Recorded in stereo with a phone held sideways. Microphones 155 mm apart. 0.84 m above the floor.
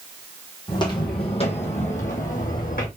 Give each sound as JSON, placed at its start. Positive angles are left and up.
{"t": 0.7, "sound": "footsteps", "side_deg": 25, "distance_m": 1.9}